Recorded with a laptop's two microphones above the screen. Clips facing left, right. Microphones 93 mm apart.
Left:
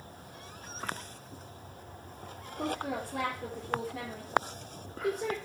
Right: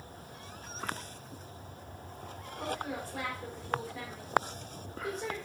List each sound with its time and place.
2.6 s a woman speaking: 75° left (ahead or behind), 3 m